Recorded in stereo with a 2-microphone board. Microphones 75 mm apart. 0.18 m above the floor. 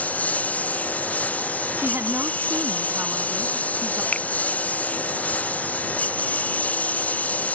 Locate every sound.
0.0 s a lawn mower: 20° left (ahead or behind)
1.8 s a woman speaking: 35° right (ahead or behind)
4.1 s a finger snap: 15° left (ahead or behind)